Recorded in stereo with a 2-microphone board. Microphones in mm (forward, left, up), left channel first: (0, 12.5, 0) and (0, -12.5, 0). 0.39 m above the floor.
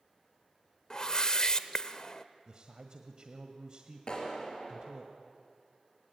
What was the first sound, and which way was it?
A whoosh, 30° left (ahead or behind).